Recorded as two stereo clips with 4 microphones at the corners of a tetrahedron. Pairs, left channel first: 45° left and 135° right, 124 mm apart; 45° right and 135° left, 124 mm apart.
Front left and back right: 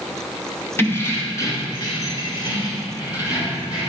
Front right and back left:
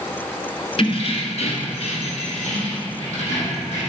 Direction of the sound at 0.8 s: 25° right.